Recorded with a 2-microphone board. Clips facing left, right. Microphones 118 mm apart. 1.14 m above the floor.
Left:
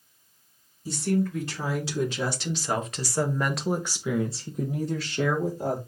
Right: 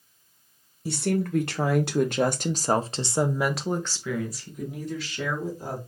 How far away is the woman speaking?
About 1.6 m.